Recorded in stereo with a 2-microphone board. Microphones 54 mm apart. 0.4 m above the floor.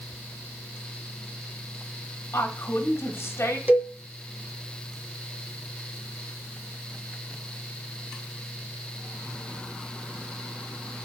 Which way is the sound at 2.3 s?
50° left (ahead or behind).